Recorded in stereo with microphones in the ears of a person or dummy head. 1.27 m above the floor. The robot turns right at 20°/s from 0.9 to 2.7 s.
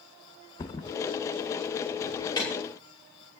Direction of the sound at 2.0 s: 30° left (ahead or behind).